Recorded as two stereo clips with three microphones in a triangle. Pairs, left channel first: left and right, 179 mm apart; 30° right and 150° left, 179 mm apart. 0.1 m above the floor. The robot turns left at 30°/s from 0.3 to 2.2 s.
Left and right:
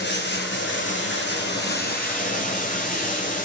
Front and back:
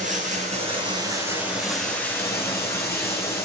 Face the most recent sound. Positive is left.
turn(degrees=45)